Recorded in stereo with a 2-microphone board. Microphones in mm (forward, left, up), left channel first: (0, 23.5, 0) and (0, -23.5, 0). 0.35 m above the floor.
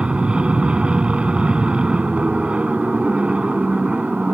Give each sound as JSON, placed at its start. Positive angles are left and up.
{"t": 0.0, "sound": "an aircraft", "side_deg": -20}